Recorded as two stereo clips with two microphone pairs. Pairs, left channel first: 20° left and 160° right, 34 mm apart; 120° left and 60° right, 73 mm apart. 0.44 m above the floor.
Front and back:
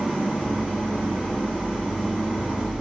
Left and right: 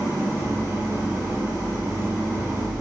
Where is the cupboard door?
No cupboard door in this recording.